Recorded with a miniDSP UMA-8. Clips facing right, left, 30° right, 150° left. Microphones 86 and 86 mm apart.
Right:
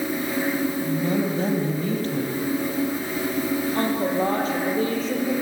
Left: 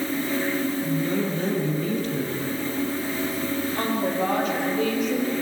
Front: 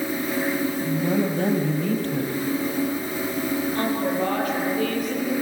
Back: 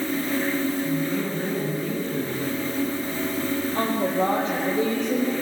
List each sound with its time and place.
0.8 s a woman speaking: 40° right, 6 m
3.8 s a woman speaking: 145° right, 7.5 m